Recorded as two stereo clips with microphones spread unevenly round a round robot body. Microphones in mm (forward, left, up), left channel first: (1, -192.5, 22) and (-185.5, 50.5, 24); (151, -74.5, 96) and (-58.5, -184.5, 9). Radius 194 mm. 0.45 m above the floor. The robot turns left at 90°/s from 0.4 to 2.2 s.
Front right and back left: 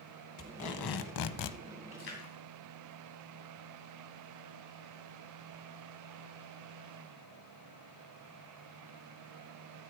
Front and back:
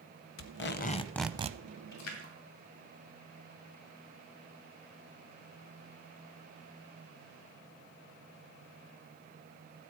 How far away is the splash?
About 2.5 m.